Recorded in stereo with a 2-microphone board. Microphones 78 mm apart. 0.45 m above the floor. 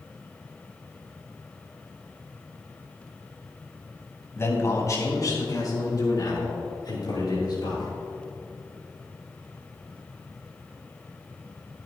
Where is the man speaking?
35° left (ahead or behind), 2.5 m; by 7.9 s 65° left (ahead or behind), 7 m.